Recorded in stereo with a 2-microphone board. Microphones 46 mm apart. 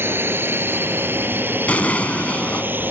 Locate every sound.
0.0 s a drone: 55° right (ahead or behind); by 2.9 s 45° right (ahead or behind)
1.7 s an explosion: 35° left (ahead or behind)